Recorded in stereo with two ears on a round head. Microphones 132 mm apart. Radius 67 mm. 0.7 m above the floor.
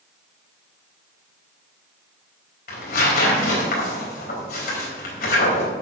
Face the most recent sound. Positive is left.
turn(degrees=70)  # may be behind; listen again after turning